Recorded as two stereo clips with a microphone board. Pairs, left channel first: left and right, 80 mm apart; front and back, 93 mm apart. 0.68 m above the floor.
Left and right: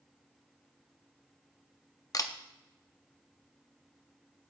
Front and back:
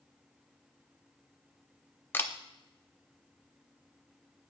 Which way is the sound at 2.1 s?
60° left.